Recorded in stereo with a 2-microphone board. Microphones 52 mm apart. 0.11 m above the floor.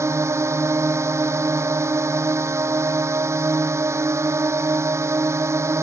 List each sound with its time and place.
0.0 s a drone: 60° right (ahead or behind)